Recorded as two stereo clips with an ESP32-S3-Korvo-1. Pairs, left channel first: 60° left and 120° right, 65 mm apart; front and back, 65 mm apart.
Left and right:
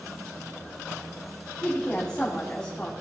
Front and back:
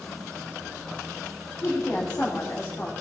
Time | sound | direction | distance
1.6 | a woman speaking | 15° right | 1.6 m